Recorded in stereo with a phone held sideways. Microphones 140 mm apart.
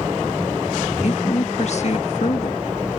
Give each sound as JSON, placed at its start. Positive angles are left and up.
{"t": 1.0, "sound": "a woman speaking", "side_deg": 55}